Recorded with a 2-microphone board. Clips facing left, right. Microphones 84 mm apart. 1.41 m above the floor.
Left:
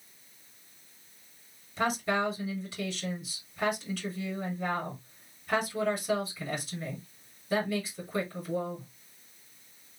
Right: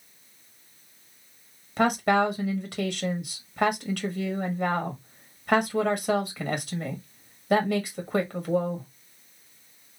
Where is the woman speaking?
65° right (ahead or behind), 1.7 m.